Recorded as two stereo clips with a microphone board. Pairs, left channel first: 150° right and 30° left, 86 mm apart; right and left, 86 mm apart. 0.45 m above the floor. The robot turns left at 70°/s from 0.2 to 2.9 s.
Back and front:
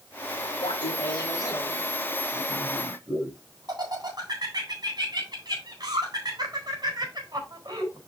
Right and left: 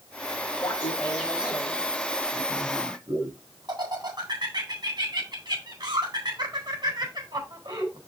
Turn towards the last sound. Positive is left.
turn(degrees=65)